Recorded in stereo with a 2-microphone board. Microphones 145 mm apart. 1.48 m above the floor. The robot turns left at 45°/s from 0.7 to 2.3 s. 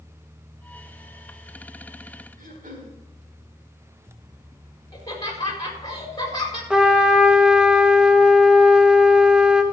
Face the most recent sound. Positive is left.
turn(degrees=-5)  # may be behind; listen again after turning